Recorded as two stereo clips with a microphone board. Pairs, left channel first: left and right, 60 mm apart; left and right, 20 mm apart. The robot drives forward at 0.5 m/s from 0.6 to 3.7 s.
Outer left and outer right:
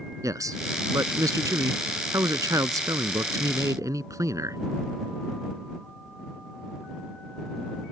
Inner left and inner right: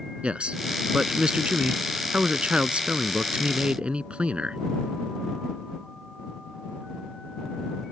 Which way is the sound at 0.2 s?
70° right (ahead or behind).